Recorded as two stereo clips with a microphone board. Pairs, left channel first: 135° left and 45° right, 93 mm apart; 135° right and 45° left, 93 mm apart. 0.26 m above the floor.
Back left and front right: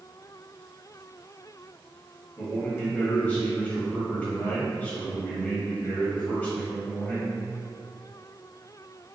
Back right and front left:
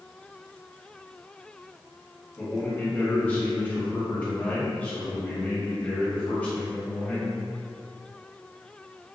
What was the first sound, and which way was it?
A man speaking, 175° right.